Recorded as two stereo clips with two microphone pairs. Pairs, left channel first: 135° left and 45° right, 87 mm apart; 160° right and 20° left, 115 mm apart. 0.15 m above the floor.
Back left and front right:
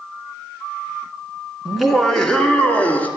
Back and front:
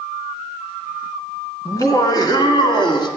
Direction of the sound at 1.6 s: 125° right.